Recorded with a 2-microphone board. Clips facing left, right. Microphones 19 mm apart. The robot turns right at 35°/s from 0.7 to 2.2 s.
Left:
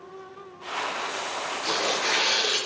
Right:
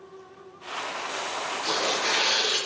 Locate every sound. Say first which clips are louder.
1.6 s tearing paper: even; 80° left, 6.5 m; by 2.6 s 75° left (ahead or behind), 6.5 m